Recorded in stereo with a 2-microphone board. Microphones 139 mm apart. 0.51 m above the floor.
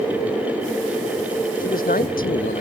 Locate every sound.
1.6 s a man speaking: 75° left (ahead or behind)